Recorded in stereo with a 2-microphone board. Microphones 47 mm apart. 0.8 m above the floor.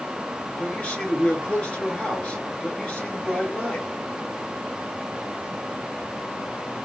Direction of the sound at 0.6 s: 25° left (ahead or behind).